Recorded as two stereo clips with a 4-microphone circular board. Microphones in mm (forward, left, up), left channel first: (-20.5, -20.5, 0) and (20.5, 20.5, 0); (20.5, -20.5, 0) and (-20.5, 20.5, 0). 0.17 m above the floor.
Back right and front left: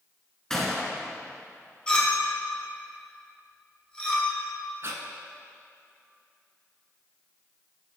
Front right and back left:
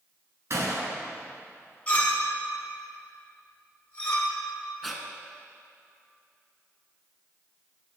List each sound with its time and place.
0.5 s a gunshot: 145° left, 0.9 m
1.9 s a clink: 80° right, 1.1 m
4.8 s breathing: 45° left, 0.6 m